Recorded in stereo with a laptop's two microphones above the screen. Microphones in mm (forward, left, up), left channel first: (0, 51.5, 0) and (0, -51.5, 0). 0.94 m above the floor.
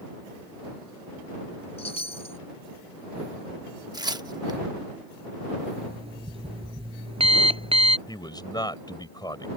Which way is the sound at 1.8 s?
85° left.